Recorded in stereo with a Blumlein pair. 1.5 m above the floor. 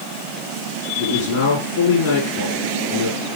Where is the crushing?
No crushing in this recording.